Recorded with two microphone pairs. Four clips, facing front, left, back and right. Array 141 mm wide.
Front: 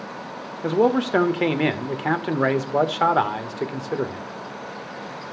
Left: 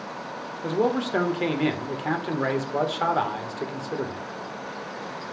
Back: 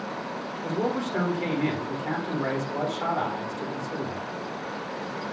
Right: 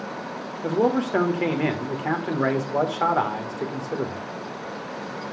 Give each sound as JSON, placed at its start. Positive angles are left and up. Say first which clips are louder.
{"t": 0.6, "sound": "a man speaking", "louder": "right 2 dB, front 9 dB", "azimuth_deg": -5, "distance_m": 1.2}